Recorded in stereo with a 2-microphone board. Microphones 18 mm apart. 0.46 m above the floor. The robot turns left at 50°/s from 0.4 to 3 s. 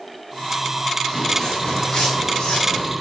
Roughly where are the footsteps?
Centre.